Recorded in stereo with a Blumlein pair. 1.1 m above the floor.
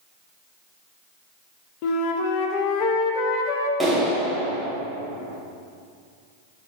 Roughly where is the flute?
Ahead left.